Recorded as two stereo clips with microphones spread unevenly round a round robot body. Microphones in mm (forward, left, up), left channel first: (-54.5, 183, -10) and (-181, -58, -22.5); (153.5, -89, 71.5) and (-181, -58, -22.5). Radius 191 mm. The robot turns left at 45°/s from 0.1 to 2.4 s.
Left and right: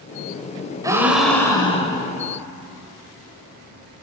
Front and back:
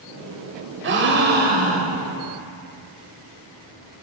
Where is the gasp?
170° left, 1.0 m; by 2.1 s 110° left, 1.0 m.